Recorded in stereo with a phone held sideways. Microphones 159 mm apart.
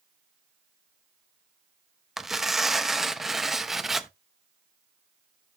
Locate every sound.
2.2 s tearing paper: centre (ahead or behind), 0.8 m